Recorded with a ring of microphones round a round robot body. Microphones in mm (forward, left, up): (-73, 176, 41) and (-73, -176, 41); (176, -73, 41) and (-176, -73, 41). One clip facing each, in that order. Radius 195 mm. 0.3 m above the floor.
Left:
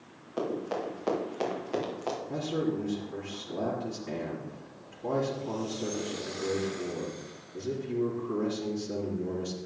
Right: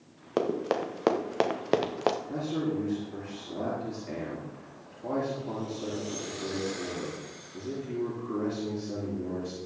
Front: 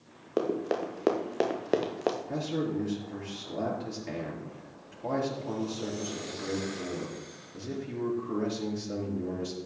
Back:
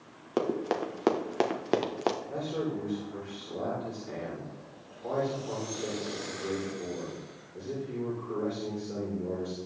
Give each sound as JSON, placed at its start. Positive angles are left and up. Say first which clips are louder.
{"t": 0.4, "sound": "running footsteps", "louder": "right 4 dB, even", "azimuth_deg": -105, "distance_m": 3.0}
{"t": 2.3, "sound": "a man speaking", "louder": "even, front 1 dB", "azimuth_deg": 10, "distance_m": 5.0}